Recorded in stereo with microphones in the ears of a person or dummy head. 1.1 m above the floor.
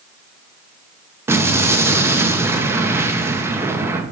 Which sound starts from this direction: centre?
An explosion, at 1.3 s.